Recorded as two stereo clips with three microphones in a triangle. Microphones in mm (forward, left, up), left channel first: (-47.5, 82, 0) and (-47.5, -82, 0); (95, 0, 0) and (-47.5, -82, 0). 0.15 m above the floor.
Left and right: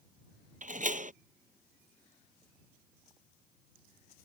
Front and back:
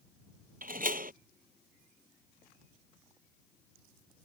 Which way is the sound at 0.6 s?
125° right.